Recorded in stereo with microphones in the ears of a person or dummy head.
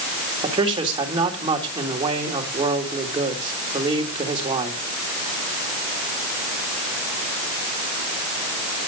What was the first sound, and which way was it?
A man speaking, 25° right (ahead or behind).